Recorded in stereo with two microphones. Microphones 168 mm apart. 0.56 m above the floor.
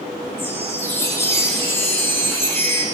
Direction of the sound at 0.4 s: 15° left (ahead or behind).